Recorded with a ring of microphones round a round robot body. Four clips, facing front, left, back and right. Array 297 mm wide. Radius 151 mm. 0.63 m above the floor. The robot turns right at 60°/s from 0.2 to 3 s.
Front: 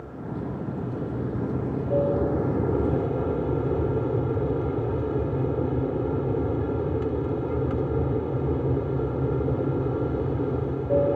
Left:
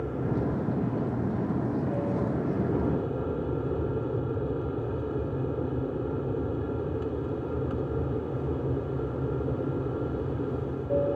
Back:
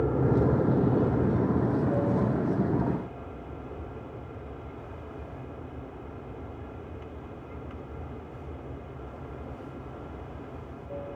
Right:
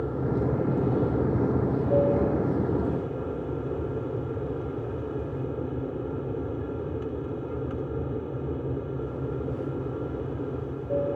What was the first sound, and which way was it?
An aircraft, 165° right.